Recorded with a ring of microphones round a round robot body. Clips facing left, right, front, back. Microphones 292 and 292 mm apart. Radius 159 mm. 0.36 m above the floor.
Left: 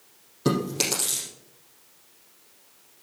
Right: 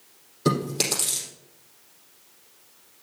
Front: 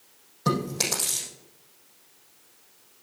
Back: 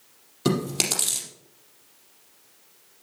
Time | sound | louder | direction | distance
0.5 | chewing | even, back 3 dB | 175° left | 4 m